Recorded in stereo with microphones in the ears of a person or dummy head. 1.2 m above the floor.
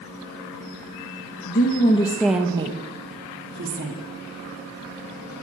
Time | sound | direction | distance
1.4 | a woman speaking | 50° left (ahead or behind) | 1.5 m